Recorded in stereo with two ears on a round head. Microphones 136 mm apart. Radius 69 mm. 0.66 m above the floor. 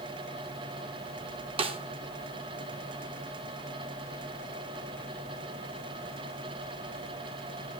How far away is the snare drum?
About 0.6 m.